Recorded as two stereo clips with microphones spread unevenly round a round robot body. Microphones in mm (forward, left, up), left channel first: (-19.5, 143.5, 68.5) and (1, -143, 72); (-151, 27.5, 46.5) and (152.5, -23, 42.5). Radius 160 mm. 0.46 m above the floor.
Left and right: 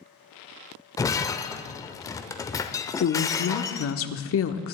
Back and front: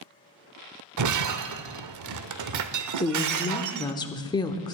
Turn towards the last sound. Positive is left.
turn(degrees=95)